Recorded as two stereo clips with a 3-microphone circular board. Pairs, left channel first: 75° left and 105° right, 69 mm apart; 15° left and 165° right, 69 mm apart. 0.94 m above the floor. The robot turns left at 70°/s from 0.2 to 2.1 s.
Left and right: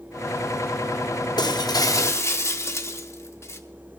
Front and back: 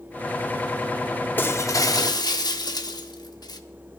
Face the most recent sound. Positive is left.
turn(degrees=25)